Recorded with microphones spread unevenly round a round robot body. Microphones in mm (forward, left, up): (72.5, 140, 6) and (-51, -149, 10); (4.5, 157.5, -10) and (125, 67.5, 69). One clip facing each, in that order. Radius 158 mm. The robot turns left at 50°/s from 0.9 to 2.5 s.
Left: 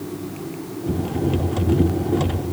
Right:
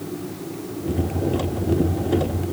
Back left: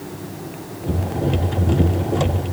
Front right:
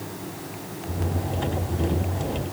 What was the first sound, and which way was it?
Only background noise.